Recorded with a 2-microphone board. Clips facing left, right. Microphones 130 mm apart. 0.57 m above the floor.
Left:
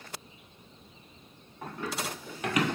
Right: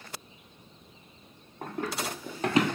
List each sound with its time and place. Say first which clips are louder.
1.6 s running footsteps: right 2 dB; 45° right (ahead or behind), 1.3 m; by 2.8 s 15° right (ahead or behind), 0.6 m